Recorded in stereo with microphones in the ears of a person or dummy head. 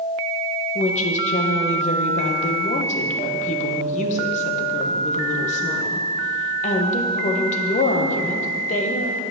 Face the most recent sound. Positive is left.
turn(degrees=45)  # may be behind; listen again after turning